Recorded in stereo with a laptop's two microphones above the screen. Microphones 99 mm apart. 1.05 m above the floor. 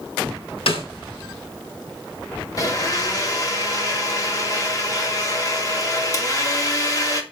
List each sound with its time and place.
0.7 s a snare drum: 70° left (ahead or behind), 5 m
2.6 s a blender: 35° left (ahead or behind), 2 m